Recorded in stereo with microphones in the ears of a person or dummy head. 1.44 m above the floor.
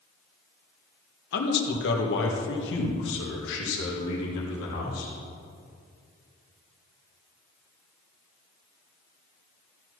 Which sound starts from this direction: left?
A man speaking, at 1.3 s.